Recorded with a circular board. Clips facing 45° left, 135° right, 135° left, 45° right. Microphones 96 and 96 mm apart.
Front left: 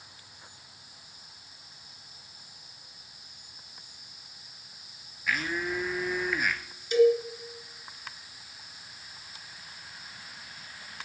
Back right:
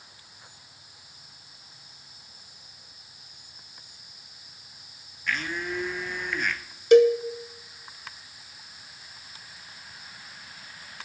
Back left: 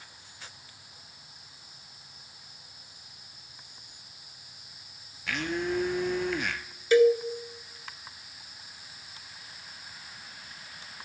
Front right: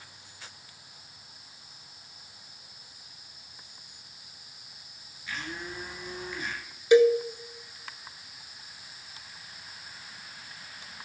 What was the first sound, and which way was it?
A blender, 130° left.